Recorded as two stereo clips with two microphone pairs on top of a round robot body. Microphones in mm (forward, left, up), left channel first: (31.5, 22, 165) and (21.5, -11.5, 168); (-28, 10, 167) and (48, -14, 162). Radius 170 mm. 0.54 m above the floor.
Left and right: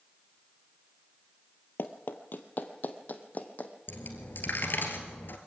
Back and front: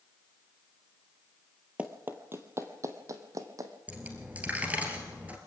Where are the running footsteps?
60° left, 0.8 m; by 3.7 s 30° left, 1.9 m.